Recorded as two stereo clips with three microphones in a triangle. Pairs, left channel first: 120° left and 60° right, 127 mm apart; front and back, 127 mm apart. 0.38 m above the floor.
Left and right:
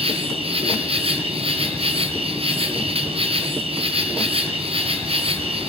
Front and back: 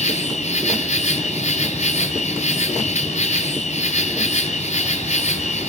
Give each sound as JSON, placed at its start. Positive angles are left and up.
{"t": 0.0, "sound": "an insect", "azimuth_deg": -20, "distance_m": 2.5}